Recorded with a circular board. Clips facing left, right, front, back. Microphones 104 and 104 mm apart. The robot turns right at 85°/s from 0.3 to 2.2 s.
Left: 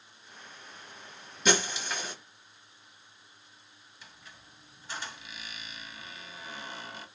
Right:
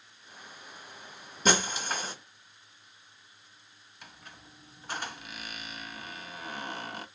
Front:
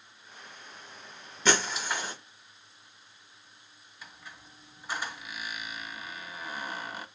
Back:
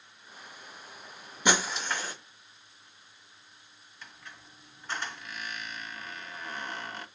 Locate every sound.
1.4 s breaking glass: 115° right, 1.0 m; by 2.1 s 55° right, 1.0 m
4.0 s a squeak: 80° right, 0.6 m